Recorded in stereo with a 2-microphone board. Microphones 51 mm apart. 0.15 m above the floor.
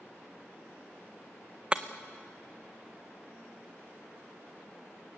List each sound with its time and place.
1.7 s breaking glass: 20° right (ahead or behind), 0.9 m